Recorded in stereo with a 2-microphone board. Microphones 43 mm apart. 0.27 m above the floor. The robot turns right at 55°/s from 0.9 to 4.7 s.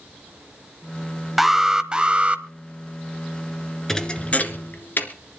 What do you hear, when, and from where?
1.4 s an alarm: 170° right, 0.9 m; by 2.4 s 110° right, 0.9 m
3.9 s a thud: 10° left (ahead or behind), 1.7 m; by 5.1 s 55° left (ahead or behind), 1.7 m